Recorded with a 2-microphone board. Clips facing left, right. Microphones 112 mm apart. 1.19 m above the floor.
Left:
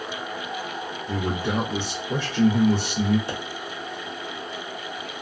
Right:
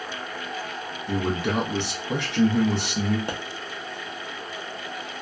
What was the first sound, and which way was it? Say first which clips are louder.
A man speaking: right 1 dB; 80° right.